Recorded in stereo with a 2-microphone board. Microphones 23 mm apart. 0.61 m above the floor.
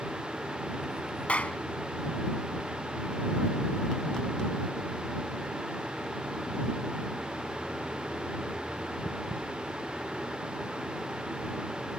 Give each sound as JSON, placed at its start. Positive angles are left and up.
{"t": 1.3, "sound": "a clap", "side_deg": 75}